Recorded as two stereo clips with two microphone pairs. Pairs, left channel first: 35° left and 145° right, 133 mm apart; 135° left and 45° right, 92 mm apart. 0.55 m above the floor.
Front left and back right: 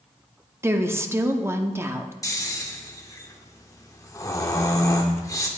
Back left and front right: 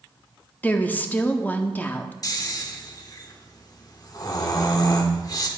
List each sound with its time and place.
0.6 s a woman speaking: 175° left, 0.6 m
2.2 s snoring: 95° left, 0.9 m